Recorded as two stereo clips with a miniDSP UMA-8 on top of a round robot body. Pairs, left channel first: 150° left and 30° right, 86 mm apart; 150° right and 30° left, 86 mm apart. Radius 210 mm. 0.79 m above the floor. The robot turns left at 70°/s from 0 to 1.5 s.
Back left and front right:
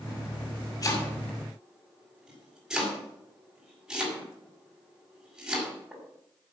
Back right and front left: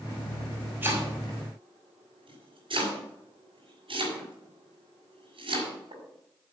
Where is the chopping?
100° left, 5.5 m; by 6.0 s 50° left, 5.5 m.